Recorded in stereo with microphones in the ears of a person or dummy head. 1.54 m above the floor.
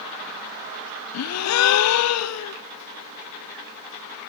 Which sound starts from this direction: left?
A gasp, at 1.1 s.